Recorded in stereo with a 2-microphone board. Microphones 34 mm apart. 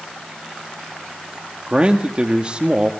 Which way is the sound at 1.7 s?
30° right (ahead or behind).